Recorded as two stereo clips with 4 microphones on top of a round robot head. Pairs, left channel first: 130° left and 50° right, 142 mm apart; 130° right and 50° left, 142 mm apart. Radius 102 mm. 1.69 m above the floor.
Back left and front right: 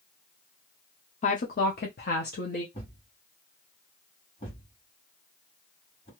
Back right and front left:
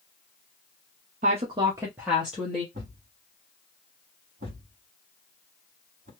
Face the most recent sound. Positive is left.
turn(degrees=85)